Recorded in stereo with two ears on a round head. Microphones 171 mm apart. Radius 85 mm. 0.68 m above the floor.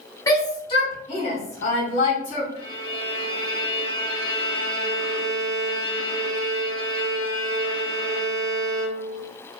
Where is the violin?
30° left (ahead or behind), 1.3 m.